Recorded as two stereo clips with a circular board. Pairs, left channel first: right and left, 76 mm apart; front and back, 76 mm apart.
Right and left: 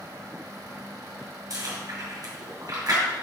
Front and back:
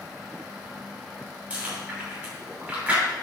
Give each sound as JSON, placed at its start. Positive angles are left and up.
{"t": 1.5, "sound": "chewing", "azimuth_deg": 115, "distance_m": 2.5}